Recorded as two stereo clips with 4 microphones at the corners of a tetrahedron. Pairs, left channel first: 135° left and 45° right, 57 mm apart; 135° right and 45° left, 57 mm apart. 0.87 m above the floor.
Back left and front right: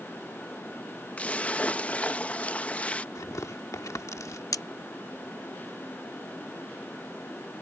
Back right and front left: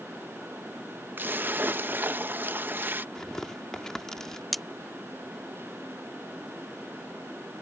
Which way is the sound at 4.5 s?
135° left.